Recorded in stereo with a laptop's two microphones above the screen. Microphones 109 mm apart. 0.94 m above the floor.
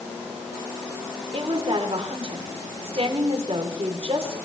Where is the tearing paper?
No tearing paper in this recording.